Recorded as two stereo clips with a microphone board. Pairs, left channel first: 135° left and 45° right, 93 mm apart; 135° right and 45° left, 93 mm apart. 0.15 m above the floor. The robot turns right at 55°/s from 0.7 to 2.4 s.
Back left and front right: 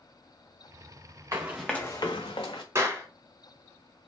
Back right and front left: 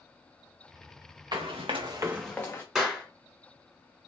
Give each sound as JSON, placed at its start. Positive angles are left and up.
{"t": 1.3, "sound": "running footsteps", "azimuth_deg": 10, "distance_m": 0.9}
{"t": 2.8, "sound": "a clap", "azimuth_deg": -35, "distance_m": 0.9}